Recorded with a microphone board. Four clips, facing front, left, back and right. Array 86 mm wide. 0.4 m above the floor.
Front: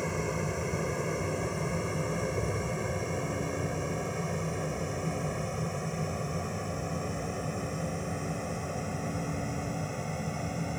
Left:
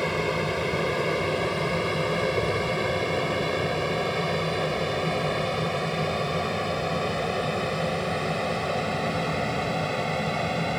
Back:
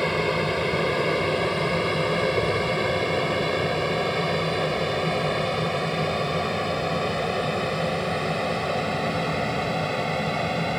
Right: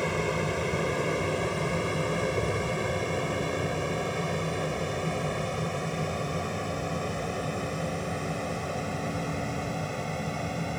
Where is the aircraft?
160° left; by 10.8 s 150° left.